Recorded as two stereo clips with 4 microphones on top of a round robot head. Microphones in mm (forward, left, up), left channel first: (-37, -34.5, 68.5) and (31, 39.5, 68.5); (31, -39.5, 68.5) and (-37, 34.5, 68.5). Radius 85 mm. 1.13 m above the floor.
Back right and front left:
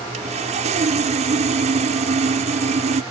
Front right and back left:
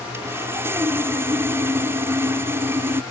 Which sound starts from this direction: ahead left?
Sawing, at 0.1 s.